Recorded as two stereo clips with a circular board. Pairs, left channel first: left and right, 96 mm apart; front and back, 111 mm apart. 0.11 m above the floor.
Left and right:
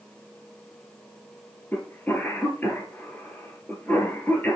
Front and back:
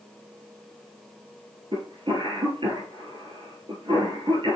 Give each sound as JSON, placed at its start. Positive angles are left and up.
{"t": 1.7, "sound": "a cough", "azimuth_deg": 155, "distance_m": 2.5}